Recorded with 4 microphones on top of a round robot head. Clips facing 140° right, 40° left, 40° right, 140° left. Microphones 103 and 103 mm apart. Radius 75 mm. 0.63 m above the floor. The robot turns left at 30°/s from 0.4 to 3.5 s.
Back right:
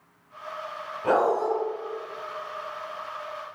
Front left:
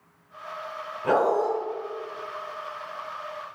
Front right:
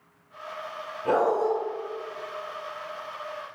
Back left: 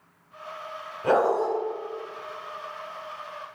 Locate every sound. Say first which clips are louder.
1.0 s a dog barking: even, back left 1 dB; 150° left, 1.4 m; by 1.5 s 135° left, 1.4 m